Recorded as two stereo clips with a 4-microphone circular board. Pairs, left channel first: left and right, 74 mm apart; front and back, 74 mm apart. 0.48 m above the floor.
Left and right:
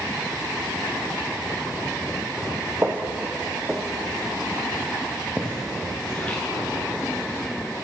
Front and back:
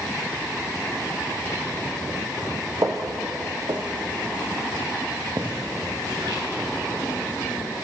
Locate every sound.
2.8 s footsteps: 145° right, 1.1 m; by 7.4 s 160° left, 3.5 m